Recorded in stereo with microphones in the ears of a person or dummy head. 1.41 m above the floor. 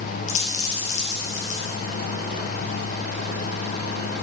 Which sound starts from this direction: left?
A dropped coin, at 0.3 s.